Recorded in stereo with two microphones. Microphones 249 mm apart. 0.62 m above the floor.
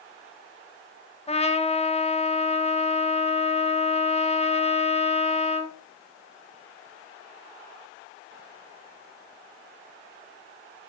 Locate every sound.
1.3 s a trumpet: 25° left (ahead or behind), 1.1 m